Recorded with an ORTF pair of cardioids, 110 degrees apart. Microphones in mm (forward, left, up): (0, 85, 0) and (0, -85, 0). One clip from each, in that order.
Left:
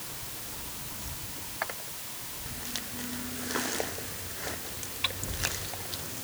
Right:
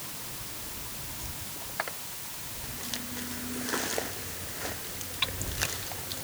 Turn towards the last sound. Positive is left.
No sound to turn to.